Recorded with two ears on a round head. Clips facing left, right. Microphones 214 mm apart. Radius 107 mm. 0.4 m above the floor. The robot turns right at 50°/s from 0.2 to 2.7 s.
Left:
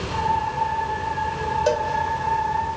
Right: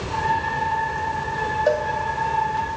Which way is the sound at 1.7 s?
45° left (ahead or behind).